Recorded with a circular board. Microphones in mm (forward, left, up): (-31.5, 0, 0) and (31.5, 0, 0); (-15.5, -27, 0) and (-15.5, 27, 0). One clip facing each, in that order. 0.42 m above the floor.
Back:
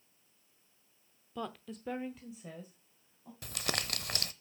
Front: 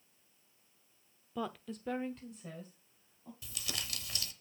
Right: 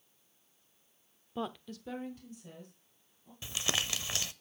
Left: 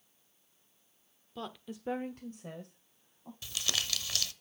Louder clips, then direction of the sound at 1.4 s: Front 2 dB, right 4 dB; 70° right.